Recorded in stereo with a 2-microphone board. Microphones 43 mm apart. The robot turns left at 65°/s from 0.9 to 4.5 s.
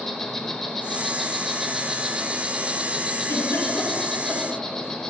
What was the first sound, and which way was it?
An insect, 5° left (ahead or behind).